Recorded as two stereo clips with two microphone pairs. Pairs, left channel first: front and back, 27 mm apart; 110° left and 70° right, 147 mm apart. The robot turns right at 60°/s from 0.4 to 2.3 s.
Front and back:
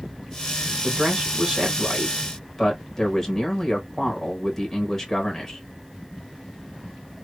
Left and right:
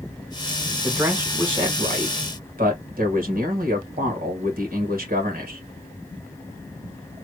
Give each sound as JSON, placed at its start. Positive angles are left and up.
{"t": 0.8, "sound": "a man speaking", "azimuth_deg": -165, "distance_m": 1.5}